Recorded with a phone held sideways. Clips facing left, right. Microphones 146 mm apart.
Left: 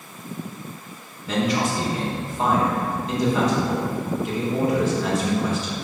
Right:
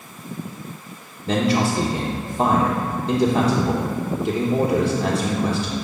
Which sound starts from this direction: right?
A man speaking, at 1.3 s.